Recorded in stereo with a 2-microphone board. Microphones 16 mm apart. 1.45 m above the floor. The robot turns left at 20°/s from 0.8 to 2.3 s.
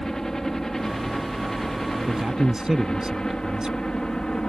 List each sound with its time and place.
0.0 s a helicopter: 35° left (ahead or behind); by 4.5 s 55° left (ahead or behind)
2.1 s a man speaking: 40° right (ahead or behind); by 3.9 s 45° right (ahead or behind)